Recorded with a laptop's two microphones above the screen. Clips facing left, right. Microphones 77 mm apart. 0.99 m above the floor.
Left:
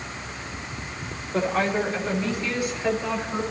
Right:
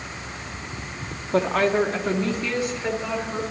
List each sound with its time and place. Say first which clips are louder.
1.3 s a woman speaking: right 3 dB; 75° right (ahead or behind), 1.7 m; by 3.4 s 15° right (ahead or behind), 3.5 m